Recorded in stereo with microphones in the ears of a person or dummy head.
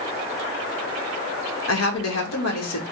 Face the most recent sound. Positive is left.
turn(degrees=75)  # may be behind; listen again after turning